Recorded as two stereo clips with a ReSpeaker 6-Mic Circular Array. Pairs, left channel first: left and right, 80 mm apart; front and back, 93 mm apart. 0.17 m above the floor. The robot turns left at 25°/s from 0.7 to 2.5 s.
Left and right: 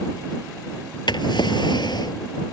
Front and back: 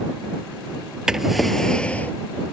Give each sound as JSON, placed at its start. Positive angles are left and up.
{"t": 1.1, "sound": "a drawer", "azimuth_deg": 95}